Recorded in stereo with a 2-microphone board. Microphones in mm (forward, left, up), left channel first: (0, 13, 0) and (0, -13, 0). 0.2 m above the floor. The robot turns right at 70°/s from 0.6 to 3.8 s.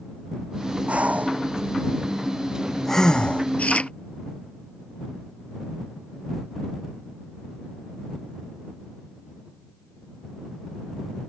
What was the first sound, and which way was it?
Breathing, 55° right (ahead or behind).